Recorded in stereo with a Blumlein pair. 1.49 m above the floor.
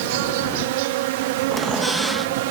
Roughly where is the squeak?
Ahead.